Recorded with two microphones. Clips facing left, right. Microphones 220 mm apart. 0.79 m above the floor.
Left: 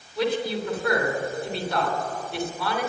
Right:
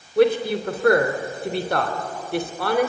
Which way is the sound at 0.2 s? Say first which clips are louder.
Right 7 dB; 55° right (ahead or behind).